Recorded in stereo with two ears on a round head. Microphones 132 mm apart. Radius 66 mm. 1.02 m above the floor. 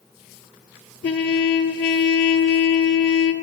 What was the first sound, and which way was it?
A trumpet, 80° left.